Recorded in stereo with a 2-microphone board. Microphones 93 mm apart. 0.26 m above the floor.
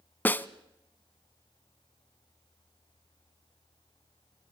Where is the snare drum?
20° left (ahead or behind), 0.6 m.